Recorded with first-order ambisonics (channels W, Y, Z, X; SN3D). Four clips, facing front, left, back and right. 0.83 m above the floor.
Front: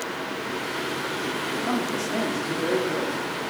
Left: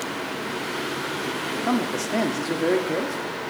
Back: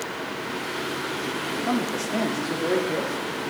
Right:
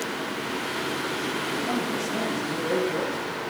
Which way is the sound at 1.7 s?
95° left.